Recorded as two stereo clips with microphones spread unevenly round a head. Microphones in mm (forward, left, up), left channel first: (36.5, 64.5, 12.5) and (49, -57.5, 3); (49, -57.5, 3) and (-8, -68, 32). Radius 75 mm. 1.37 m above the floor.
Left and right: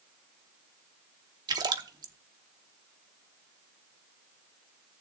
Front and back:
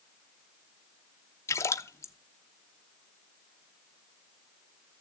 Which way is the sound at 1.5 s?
40° right.